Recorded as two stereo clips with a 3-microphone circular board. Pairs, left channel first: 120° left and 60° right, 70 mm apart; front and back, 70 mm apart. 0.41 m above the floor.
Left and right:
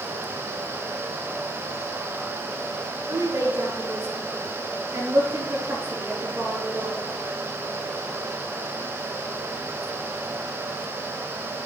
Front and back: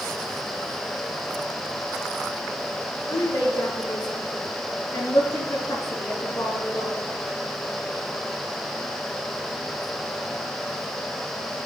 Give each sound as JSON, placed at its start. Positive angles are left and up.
{"t": 3.1, "sound": "a woman speaking", "azimuth_deg": -25, "distance_m": 5.0}